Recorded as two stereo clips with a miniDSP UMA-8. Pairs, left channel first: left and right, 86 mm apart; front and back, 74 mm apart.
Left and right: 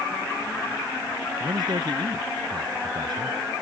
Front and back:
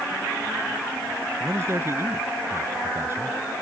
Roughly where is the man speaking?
Behind right.